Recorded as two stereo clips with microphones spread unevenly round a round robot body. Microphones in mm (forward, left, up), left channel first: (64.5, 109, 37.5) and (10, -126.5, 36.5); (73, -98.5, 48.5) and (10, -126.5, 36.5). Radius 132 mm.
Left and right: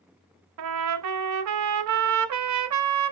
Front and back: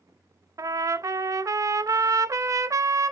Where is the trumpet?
110° right, 0.5 m.